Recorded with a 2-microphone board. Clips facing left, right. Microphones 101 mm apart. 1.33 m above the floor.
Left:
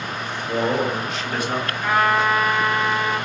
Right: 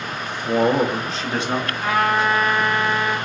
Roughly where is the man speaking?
Right.